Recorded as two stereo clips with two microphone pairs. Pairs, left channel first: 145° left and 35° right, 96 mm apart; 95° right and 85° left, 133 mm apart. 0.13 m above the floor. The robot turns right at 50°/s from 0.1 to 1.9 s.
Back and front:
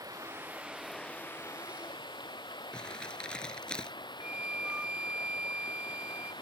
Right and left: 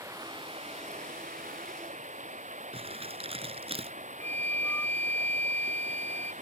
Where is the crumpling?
70° left.